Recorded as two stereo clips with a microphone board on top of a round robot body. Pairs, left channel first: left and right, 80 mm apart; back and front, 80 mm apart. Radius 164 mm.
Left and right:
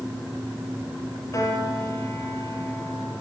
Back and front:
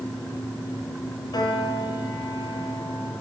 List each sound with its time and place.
1.3 s a piano: 140° left, 5 m